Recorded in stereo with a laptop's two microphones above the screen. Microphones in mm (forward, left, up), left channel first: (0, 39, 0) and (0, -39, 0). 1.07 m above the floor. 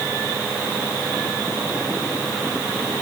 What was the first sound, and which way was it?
Only background noise.